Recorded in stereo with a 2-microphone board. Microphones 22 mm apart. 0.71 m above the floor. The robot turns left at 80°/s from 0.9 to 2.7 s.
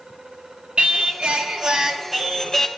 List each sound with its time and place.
0.8 s singing: 65° right, 0.6 m; by 2.7 s 155° left, 0.6 m